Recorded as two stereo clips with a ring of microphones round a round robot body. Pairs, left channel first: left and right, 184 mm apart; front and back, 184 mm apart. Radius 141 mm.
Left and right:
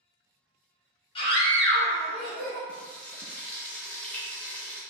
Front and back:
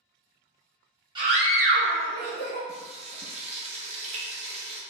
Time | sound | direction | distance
1.1 | a scream | 130° left | 1.0 m
2.7 | frying | 165° left | 0.9 m